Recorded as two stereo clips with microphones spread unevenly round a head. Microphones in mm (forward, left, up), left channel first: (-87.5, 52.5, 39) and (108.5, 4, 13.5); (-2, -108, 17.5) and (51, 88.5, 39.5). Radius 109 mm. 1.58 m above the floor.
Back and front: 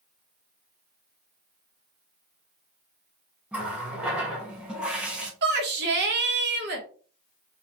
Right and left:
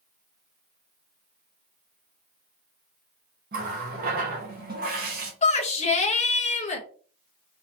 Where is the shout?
50° right, 1.2 m.